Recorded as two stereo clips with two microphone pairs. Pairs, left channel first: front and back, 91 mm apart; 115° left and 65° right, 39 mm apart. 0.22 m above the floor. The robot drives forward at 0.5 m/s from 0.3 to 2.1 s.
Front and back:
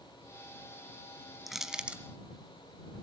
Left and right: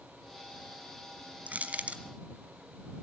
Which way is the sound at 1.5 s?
90° right.